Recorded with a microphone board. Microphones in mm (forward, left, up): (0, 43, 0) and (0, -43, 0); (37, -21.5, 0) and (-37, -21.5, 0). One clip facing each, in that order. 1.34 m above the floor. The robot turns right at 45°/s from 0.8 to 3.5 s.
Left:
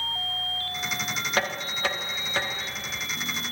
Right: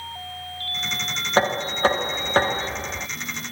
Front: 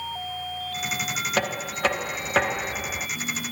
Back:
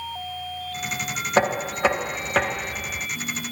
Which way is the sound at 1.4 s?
135° right.